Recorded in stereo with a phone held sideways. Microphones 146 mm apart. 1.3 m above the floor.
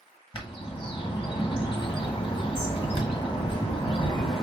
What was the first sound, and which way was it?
A bird, 35° left (ahead or behind).